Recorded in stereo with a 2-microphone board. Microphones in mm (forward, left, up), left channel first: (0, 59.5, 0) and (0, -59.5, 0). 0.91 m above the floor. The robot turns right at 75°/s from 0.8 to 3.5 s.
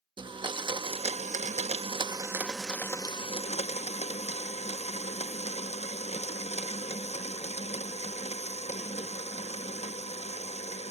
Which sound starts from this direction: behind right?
A blender, at 0.2 s.